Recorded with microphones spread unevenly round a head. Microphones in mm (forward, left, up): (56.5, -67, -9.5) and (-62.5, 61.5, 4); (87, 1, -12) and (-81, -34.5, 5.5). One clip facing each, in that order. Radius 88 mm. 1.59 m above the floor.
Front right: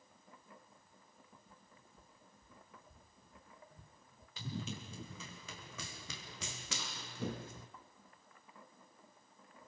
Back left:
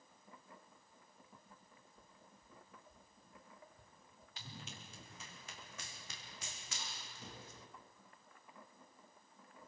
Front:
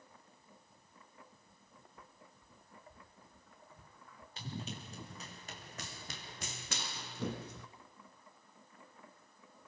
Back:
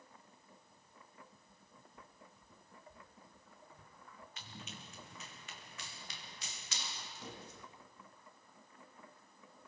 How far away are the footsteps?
About 4 m.